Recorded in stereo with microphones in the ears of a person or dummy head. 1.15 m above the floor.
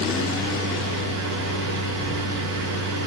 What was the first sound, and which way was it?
A fan, 60° right (ahead or behind).